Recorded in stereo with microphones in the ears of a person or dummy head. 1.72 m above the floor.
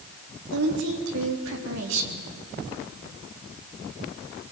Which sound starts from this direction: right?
A woman speaking, at 0.5 s.